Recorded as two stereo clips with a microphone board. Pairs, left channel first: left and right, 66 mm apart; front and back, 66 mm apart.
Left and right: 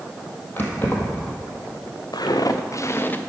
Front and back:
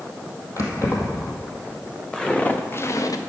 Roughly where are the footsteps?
Left.